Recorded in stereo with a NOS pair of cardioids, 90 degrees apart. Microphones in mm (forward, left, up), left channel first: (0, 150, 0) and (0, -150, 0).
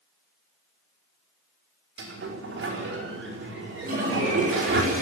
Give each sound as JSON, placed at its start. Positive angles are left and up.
{"t": 2.0, "sound": "a sliding door", "azimuth_deg": -40, "distance_m": 5.0}
{"t": 3.8, "sound": "a toilet flushing", "azimuth_deg": -30, "distance_m": 7.5}